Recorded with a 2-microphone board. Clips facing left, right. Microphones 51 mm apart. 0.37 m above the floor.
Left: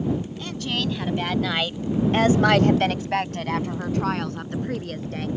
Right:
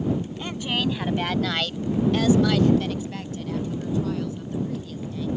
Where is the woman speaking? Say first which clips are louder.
Right 1 dB; 20° right (ahead or behind); by 5.3 s 60° left (ahead or behind).